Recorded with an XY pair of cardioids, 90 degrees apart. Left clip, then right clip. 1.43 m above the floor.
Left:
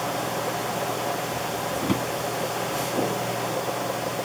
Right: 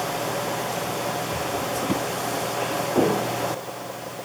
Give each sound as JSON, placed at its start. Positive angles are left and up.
{"t": 1.8, "sound": "a drawer", "azimuth_deg": 25}